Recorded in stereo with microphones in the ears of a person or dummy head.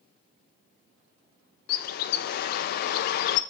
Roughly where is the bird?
Left.